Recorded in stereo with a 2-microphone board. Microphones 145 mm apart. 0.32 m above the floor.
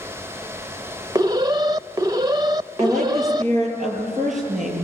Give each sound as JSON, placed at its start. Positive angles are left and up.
{"t": 1.1, "sound": "an alarm", "side_deg": -25, "distance_m": 0.6}
{"t": 2.8, "sound": "a woman speaking", "side_deg": -60, "distance_m": 7.0}